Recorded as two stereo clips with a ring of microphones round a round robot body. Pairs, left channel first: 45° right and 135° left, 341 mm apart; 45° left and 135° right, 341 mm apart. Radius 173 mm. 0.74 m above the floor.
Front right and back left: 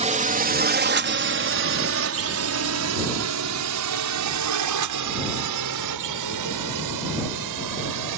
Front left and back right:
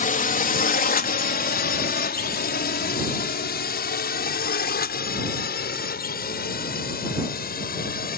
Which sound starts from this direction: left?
A drone, at 0.0 s.